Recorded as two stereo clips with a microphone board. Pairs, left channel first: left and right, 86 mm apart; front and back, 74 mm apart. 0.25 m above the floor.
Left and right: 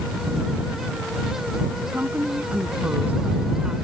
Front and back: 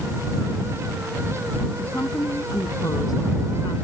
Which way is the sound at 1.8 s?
35° right.